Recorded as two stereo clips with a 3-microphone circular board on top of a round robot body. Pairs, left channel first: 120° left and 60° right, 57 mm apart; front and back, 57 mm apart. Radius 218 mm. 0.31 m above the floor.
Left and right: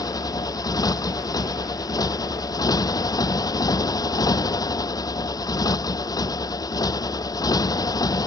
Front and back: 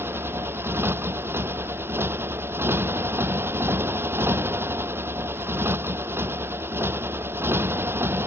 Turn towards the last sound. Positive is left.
turn(degrees=130)